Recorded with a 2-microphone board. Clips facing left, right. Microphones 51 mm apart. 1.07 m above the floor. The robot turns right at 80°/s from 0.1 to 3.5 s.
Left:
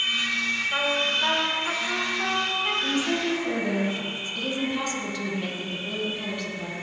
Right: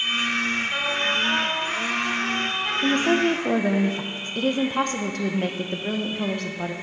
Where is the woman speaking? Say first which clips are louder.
Right 5 dB; 115° right, 0.7 m; by 6.7 s 60° right, 0.7 m.